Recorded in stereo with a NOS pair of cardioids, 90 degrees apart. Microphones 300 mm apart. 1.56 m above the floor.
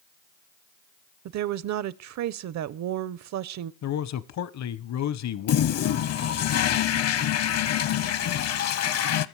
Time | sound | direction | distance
1.2 | a woman speaking | 65° right | 0.8 m
3.8 | a man speaking | 65° left | 1.0 m
5.5 | a toilet flushing | 55° left | 0.9 m